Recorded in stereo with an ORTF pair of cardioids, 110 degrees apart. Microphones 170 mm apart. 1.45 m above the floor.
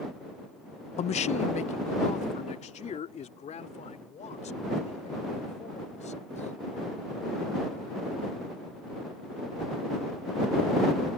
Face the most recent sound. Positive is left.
turn(degrees=45)